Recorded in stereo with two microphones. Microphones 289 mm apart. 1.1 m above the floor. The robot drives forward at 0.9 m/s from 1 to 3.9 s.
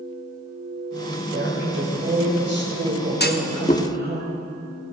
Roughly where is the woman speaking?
Right.